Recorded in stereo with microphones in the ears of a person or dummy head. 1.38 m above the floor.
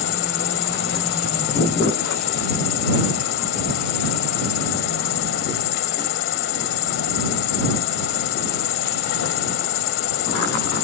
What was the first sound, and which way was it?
An insect, 50° left (ahead or behind).